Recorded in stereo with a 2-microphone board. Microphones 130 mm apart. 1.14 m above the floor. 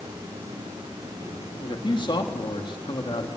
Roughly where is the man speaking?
Left.